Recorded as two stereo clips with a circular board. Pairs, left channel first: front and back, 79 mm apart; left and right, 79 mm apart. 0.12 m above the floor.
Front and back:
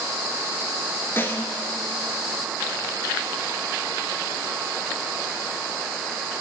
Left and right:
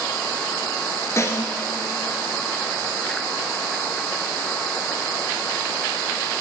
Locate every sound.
1.2 s a snare drum: 50° left, 1.7 m